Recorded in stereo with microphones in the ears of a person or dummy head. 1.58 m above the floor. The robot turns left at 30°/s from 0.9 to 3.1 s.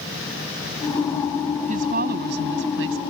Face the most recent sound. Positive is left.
turn(degrees=-85)